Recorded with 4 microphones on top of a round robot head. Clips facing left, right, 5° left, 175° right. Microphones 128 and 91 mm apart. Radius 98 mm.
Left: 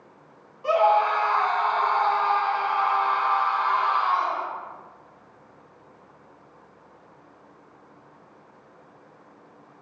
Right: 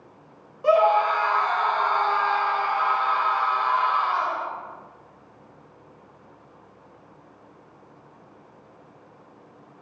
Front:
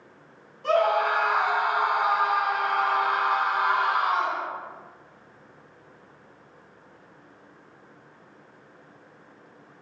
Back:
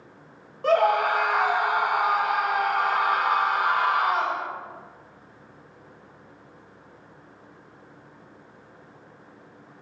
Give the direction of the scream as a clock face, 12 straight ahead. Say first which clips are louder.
Right 1 dB, back 2 dB; 4 o'clock.